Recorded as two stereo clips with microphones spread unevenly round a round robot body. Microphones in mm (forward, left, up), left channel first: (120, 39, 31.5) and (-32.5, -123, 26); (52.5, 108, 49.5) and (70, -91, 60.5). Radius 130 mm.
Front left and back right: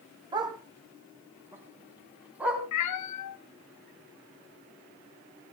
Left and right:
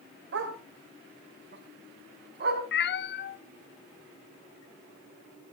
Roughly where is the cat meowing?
Ahead left.